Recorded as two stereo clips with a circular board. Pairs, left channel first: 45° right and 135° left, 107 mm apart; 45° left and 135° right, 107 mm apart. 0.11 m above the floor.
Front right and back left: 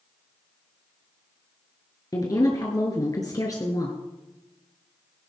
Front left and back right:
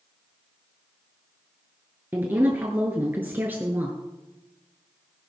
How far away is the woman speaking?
About 1.4 m.